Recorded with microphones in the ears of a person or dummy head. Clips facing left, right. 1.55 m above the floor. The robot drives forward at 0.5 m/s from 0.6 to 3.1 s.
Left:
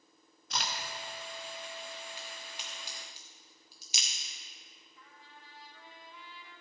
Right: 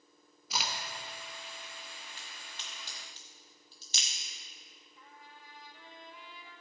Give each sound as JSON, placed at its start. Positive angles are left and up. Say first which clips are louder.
{"t": 0.5, "sound": "a crack", "louder": "even", "side_deg": 0, "distance_m": 1.1}
{"t": 2.2, "sound": "a crack", "louder": "left 5 dB", "side_deg": 15, "distance_m": 1.1}
{"t": 5.0, "sound": "a trumpet", "louder": "right 2 dB", "side_deg": -15, "distance_m": 1.5}